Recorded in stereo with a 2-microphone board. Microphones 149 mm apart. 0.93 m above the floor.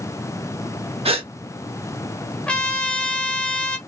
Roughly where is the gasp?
Right.